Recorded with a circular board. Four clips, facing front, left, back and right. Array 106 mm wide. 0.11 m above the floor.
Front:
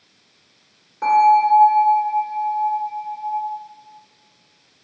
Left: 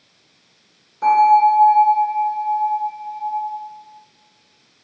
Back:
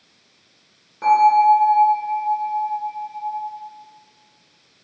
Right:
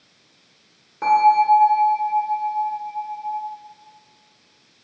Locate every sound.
1.0 s a bell: 85° right, 1.9 m